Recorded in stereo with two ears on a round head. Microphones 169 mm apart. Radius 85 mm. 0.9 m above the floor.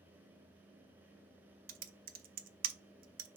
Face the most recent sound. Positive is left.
turn(degrees=-50)  # may be behind; listen again after turning